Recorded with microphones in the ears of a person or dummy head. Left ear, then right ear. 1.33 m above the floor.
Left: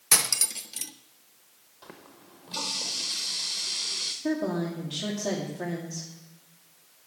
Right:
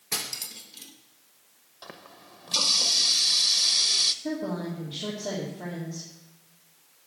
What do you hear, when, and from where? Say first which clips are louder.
0.1 s cutlery clinking: left 7 dB; 55° left (ahead or behind), 0.8 m
1.8 s a running tap: right 4 dB; 25° right (ahead or behind), 0.8 m
4.2 s a woman speaking: left 3 dB; 85° left, 2.5 m